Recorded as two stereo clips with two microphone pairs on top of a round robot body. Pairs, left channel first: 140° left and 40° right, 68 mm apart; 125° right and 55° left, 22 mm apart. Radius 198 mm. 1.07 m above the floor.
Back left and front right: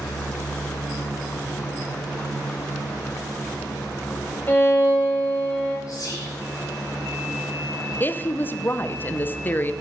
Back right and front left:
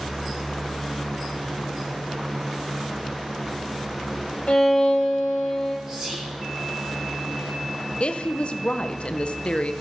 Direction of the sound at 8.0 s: 160° right.